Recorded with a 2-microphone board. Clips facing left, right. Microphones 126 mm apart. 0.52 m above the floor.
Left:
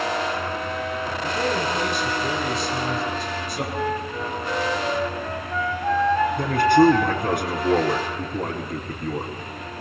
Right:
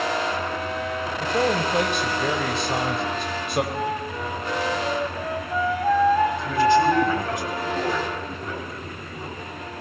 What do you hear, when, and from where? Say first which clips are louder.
1.2 s a man speaking: right 3 dB; 70° right (ahead or behind), 3.5 m
3.7 s a flute: left 1 dB; 10° right (ahead or behind), 2.5 m
6.4 s a man speaking: left 2 dB; 65° left (ahead or behind), 4.5 m